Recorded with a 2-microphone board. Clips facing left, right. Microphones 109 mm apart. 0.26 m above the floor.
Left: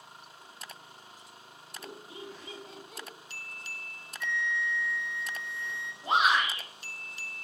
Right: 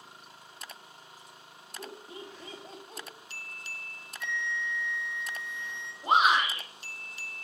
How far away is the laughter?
About 1.3 m.